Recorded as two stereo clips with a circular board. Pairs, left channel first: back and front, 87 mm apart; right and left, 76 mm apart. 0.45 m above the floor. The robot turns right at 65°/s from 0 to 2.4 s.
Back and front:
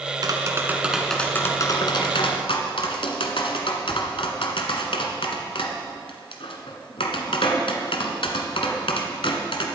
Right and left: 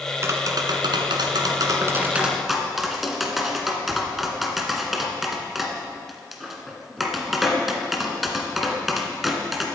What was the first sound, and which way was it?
Tapping, 35° left.